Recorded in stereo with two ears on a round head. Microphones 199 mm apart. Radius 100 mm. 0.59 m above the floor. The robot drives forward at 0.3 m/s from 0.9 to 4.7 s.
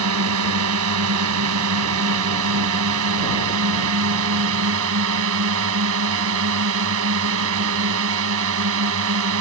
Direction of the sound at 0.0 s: 80° right.